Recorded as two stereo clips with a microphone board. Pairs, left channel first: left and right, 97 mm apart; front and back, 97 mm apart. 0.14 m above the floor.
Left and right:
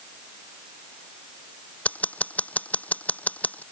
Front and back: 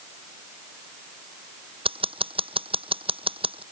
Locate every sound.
1.9 s scissors: 165° left